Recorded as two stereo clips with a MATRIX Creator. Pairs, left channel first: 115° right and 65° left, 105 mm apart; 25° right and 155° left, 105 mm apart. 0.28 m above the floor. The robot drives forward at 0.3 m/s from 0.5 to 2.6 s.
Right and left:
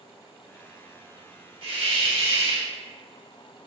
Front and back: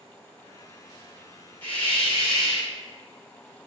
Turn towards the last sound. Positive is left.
turn(degrees=65)